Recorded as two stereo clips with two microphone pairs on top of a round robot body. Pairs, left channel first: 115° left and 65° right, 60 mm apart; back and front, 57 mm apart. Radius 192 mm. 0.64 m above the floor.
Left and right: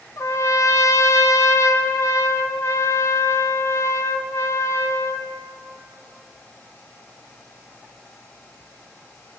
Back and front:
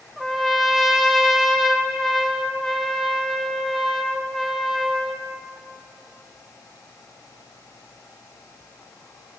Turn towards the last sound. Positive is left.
turn(degrees=95)